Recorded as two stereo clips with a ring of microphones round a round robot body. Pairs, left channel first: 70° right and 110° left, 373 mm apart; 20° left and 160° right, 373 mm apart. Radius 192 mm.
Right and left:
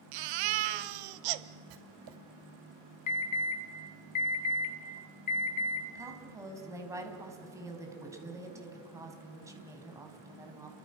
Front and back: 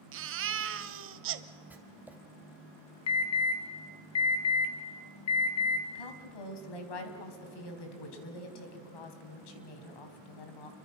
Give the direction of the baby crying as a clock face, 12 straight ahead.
7 o'clock.